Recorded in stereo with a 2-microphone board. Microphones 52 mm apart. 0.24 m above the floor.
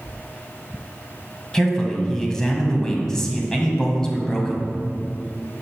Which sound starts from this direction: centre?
A man speaking, at 1.5 s.